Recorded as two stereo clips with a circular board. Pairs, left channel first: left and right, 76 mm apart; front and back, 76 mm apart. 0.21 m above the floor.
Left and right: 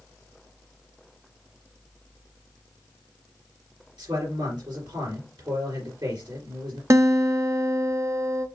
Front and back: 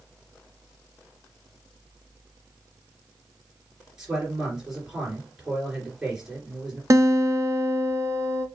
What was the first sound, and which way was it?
A man speaking, 95° right.